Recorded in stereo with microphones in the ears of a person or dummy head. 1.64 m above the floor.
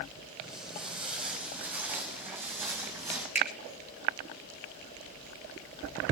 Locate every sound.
0.4 s footsteps: centre (ahead or behind), 5.5 m; by 3.2 s 10° right (ahead or behind), 7 m
3.4 s a finger snap: 10° right (ahead or behind), 7 m